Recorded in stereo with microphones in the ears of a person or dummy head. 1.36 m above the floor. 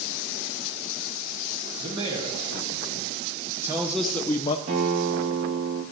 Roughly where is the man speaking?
Right.